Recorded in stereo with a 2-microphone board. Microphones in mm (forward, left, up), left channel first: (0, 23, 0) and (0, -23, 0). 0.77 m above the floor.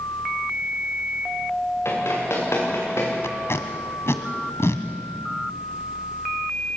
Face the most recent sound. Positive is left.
turn(degrees=70)  # may be behind; listen again after turning